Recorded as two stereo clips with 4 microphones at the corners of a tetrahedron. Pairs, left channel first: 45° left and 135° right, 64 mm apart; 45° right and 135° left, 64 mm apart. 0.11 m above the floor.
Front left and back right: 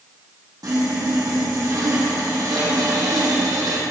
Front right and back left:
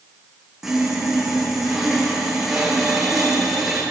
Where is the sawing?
140° right, 3.5 m.